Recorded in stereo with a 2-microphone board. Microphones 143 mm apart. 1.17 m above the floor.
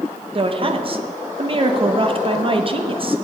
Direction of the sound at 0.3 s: 40° right (ahead or behind).